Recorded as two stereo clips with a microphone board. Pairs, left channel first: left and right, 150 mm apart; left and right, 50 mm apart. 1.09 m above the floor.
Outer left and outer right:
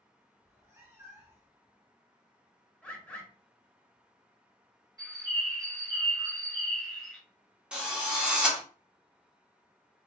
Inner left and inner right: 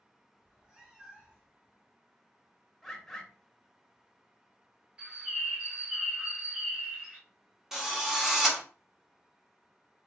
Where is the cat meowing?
15° right (ahead or behind), 0.8 m.